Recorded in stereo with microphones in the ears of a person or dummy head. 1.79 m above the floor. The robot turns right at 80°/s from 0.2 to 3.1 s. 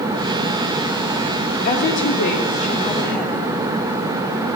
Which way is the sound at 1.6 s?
50° left.